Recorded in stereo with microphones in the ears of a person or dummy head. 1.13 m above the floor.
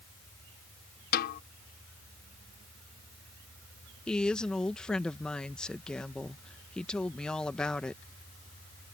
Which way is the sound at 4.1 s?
5° left (ahead or behind).